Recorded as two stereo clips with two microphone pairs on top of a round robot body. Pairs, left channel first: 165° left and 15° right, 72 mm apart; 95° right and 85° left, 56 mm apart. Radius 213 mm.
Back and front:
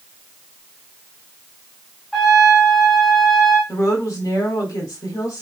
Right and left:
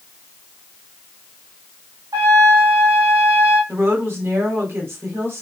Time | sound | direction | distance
2.1 | a trumpet | 80° left | 0.6 m
3.7 | a woman speaking | 130° left | 3.5 m